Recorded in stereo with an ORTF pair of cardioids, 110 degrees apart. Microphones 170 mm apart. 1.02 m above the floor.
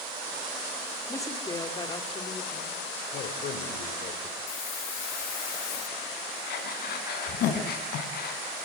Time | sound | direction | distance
1.1 | a woman speaking | 15° left | 3.5 m
3.1 | a man speaking | 60° left | 3.5 m
4.5 | a hiss | 70° left | 1.8 m
6.5 | breathing | 70° left | 5 m